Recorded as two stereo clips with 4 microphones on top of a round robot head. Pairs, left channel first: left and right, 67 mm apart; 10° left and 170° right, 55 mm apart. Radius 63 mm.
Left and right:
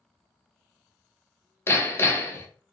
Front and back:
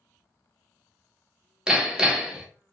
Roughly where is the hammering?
Behind left.